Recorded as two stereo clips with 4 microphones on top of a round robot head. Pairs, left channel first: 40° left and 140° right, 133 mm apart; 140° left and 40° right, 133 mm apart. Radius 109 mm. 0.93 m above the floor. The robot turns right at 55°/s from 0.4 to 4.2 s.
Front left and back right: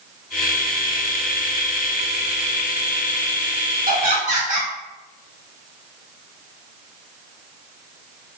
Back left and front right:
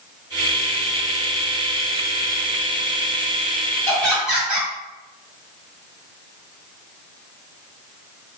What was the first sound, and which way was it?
Laughter, 145° right.